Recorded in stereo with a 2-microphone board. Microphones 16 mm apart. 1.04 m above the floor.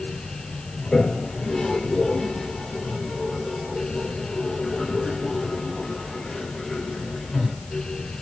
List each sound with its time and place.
0.8 s a toilet flushing: 55° left (ahead or behind), 3.5 m